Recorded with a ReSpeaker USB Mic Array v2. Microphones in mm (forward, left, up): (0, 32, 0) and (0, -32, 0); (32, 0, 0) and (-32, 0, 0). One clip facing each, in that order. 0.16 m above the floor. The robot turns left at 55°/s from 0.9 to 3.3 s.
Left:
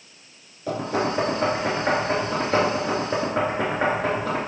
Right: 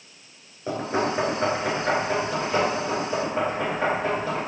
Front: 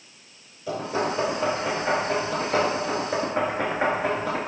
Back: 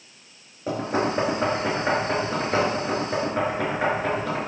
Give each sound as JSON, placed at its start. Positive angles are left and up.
{"t": 0.7, "sound": "knocking", "azimuth_deg": -150, "distance_m": 2.0}